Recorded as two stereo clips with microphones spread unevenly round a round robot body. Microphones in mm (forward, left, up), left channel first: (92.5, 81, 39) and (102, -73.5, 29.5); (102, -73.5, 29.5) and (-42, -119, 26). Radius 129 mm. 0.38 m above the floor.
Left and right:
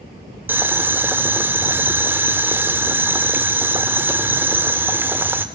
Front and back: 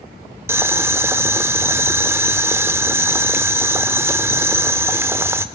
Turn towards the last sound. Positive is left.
turn(degrees=-125)